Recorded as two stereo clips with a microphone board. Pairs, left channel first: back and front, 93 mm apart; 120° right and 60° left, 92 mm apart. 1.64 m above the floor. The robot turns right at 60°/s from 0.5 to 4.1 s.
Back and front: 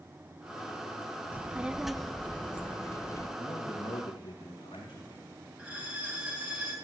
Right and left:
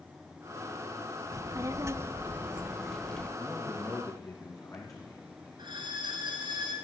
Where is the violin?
75° left, 3.5 m.